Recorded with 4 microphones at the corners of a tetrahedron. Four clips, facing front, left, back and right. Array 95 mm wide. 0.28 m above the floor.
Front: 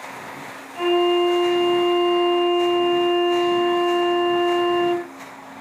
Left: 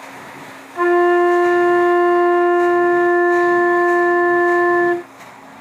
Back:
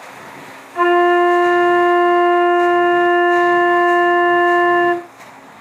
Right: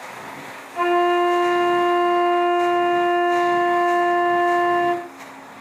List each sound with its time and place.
0.8 s a flute: 165° left, 2.5 m